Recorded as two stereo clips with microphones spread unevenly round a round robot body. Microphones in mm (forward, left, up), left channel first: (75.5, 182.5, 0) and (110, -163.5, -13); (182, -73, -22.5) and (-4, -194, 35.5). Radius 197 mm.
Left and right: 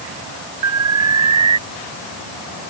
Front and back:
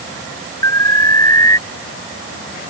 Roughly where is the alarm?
Ahead right.